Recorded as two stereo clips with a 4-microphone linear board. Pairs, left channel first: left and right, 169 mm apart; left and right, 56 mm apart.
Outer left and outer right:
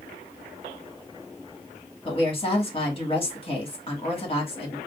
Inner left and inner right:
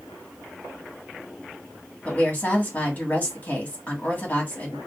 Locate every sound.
2.0 s a woman speaking: 35° left (ahead or behind), 1.7 m